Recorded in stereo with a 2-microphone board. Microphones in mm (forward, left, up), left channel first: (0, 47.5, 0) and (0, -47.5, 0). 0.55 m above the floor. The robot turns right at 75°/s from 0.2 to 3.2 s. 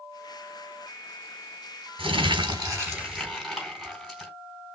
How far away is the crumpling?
About 3 m.